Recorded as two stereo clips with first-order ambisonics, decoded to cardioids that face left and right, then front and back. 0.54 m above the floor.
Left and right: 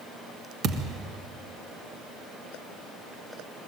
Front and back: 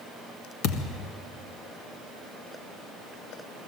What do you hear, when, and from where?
0.6 s a thud: 30° right, 1.6 m